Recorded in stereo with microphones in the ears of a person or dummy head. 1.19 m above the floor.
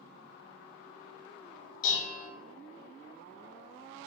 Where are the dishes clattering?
55° left (ahead or behind), 1.1 m.